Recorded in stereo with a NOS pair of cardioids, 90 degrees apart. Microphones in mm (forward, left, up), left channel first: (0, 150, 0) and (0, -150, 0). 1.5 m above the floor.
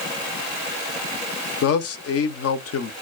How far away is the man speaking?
About 0.8 m.